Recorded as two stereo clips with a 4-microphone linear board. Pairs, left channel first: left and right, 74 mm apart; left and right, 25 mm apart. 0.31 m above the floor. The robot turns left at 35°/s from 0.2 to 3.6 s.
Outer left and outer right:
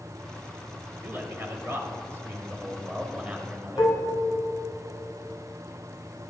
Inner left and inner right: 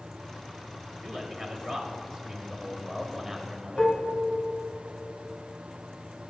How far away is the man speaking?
About 1.0 m.